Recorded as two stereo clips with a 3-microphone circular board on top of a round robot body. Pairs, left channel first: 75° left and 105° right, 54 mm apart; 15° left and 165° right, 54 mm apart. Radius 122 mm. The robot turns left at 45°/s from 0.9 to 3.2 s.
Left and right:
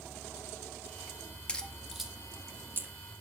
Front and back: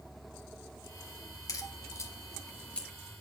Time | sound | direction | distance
1.5 | a crack | straight ahead | 2.5 m